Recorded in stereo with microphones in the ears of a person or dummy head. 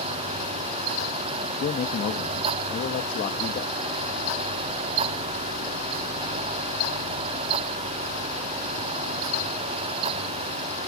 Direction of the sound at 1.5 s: 35° left (ahead or behind).